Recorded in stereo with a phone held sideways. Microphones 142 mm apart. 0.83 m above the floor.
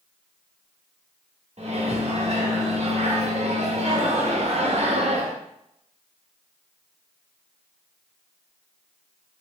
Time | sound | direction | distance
1.6 | a microwave | 50° right (ahead or behind) | 0.8 m